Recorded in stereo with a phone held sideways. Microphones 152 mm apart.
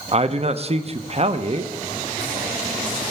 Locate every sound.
0.1 s a man speaking: 45° right (ahead or behind), 0.6 m